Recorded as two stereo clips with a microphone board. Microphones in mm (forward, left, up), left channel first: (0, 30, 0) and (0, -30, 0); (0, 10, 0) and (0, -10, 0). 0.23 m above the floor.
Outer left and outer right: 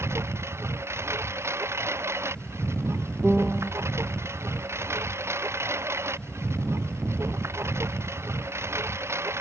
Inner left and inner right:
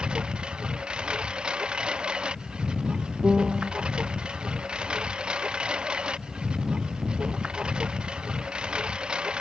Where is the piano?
15° right (ahead or behind).